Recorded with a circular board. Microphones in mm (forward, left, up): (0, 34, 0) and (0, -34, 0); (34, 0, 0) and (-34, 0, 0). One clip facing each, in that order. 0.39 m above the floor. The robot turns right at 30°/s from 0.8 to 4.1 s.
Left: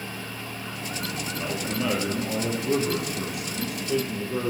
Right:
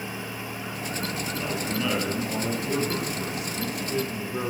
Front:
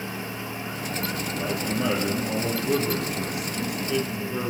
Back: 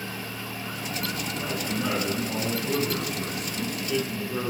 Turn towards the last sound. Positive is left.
turn(degrees=95)